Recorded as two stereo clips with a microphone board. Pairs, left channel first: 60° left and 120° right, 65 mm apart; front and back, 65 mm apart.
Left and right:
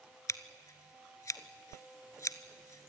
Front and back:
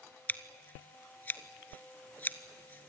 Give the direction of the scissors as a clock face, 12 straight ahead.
10 o'clock.